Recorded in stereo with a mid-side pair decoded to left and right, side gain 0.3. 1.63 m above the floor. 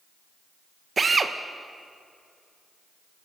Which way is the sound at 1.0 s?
50° right.